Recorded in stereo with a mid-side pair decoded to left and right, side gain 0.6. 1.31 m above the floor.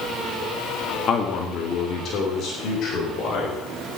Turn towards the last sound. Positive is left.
turn(degrees=55)